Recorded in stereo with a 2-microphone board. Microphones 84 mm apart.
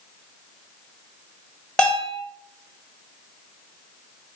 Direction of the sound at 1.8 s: 10° left (ahead or behind).